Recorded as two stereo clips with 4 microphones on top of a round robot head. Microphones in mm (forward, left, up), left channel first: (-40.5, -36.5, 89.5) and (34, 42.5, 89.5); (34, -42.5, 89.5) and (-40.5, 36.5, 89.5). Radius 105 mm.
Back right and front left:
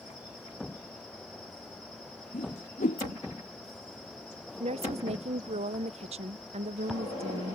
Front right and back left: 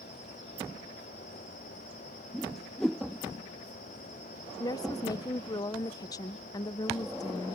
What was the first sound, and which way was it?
A whoosh, 130° right.